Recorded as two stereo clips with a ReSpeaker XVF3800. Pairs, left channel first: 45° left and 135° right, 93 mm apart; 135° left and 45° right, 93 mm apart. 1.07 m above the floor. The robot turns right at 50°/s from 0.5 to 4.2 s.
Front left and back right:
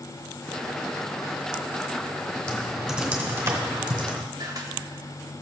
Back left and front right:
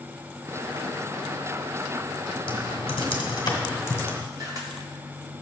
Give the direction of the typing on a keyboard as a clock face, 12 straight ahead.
8 o'clock.